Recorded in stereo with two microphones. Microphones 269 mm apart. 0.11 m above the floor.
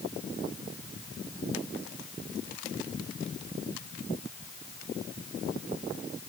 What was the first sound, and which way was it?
Only background noise.